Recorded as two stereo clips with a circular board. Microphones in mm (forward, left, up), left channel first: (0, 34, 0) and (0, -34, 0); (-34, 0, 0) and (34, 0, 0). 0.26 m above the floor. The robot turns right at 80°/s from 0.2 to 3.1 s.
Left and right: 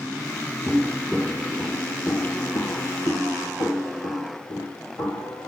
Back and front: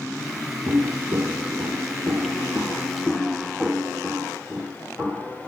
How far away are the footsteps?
About 0.5 m.